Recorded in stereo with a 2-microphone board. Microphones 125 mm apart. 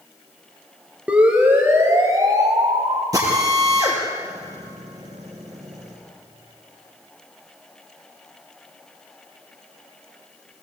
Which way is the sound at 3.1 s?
30° right (ahead or behind).